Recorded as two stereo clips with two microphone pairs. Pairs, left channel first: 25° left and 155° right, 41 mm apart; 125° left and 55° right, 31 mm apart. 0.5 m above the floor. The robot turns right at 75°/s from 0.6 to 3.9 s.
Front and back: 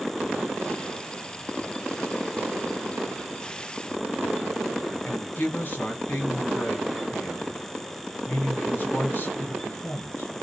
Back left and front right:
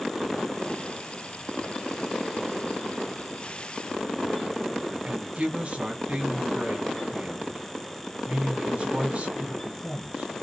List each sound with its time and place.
5.0 s a woman speaking: 15° right, 2.5 m